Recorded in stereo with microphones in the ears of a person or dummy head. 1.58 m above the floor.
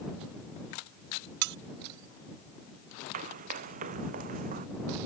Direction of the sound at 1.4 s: 60° right (ahead or behind).